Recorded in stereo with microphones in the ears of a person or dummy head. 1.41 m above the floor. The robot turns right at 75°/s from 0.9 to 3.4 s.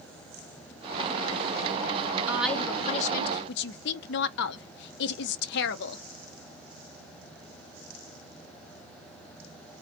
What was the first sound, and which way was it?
A woman speaking, 10° right.